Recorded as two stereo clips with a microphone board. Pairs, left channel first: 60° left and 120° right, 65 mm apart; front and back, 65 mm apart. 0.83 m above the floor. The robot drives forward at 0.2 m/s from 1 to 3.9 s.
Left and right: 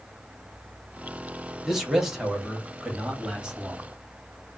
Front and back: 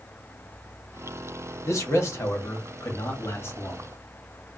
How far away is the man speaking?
About 1.4 m.